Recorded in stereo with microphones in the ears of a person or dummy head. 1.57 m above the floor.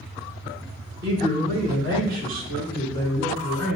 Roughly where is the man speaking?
Right.